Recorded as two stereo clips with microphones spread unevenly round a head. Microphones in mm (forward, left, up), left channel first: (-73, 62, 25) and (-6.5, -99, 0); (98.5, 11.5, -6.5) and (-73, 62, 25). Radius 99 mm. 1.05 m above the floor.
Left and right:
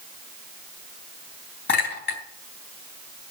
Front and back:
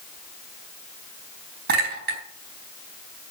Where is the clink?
135° left, 4 m.